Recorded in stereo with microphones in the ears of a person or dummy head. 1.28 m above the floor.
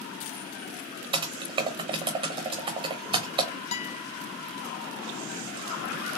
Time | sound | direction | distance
1.1 | typing on a keyboard | 25° right (ahead or behind) | 0.8 m
3.7 | a guitar | 35° left (ahead or behind) | 0.7 m